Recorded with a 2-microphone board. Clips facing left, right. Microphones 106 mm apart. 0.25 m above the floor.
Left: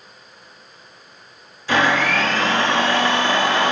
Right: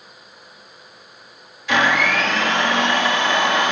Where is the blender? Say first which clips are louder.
Even; 30° left (ahead or behind), 4.5 m.